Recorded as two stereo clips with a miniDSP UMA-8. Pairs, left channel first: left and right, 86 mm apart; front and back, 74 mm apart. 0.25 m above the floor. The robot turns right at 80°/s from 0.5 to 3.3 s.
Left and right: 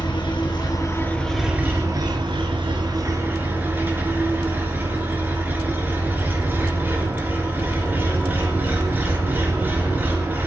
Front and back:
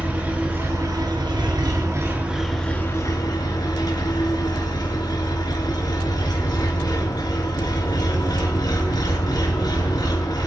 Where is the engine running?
115° left, 3 m; by 10.5 s 25° right, 3 m.